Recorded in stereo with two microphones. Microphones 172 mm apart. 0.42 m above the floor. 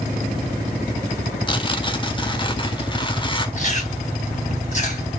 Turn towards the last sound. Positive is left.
turn(degrees=45)  # may be behind; listen again after turning